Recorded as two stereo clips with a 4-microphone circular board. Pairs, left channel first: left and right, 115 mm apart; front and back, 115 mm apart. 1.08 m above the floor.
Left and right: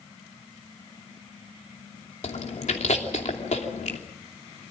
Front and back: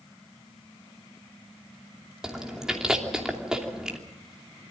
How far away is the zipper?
I don't hear a zipper.